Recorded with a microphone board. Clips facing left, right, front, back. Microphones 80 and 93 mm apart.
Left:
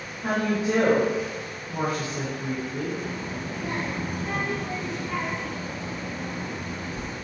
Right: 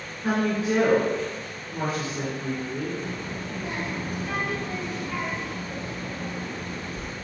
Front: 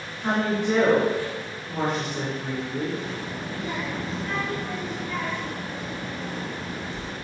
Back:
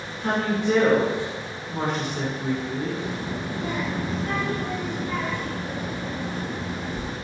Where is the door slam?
No door slam in this recording.